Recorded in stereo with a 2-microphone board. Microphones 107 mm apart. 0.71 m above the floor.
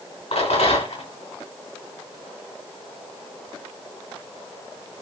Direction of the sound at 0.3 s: 85° left.